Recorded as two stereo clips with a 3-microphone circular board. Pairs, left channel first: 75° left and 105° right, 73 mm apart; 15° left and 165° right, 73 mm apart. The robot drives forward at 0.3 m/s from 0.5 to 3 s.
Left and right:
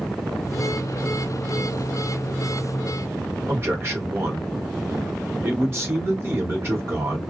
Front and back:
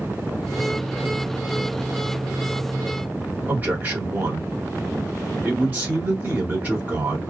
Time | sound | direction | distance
3.5 | a man speaking | 125° right | 1.5 m